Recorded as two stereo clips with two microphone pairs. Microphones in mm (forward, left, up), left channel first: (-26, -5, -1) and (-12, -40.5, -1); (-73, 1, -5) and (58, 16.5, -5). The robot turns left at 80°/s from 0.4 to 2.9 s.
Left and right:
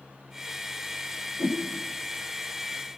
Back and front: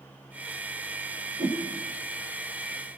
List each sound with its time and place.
1.4 s a whoosh: 40° right, 7.5 m; by 1.6 s 55° right, 7.5 m